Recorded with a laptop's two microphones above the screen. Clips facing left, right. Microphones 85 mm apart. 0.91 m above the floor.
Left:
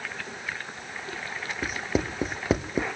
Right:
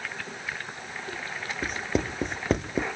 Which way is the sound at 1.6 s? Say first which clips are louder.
Even; 5° left (ahead or behind).